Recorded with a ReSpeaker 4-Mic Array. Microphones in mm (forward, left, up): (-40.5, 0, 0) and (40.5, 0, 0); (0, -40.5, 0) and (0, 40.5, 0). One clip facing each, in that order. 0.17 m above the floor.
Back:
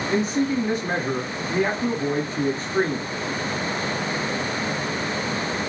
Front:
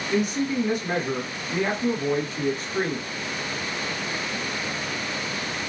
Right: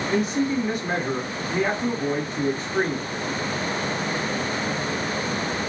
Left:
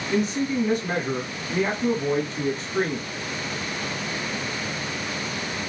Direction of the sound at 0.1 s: 155° right.